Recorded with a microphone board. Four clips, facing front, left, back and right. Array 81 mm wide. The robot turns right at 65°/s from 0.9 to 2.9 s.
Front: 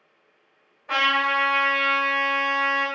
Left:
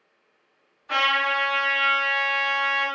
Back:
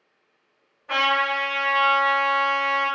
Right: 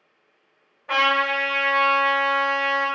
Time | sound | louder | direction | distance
0.9 | a trumpet | right 2 dB, even | 85° right | 1.4 m